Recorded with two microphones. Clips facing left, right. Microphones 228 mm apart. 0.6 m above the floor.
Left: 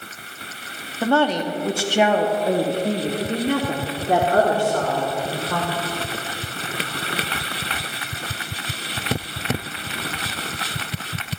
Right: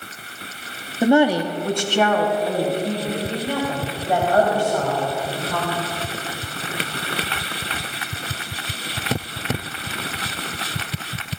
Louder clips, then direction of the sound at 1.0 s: Right 4 dB; 20° right (ahead or behind).